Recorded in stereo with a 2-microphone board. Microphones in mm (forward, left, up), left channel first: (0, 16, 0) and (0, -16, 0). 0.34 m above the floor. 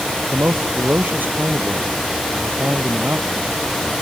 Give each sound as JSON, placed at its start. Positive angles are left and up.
{"t": 0.3, "sound": "a man speaking", "side_deg": -85}